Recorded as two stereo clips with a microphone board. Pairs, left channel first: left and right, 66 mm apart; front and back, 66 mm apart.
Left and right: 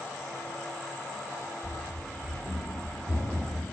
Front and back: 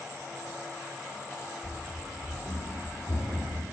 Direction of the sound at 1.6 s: 25° left.